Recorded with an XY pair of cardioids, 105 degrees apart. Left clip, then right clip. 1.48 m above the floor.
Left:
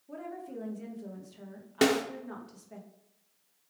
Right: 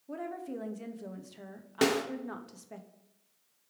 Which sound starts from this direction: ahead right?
A woman speaking, at 0.1 s.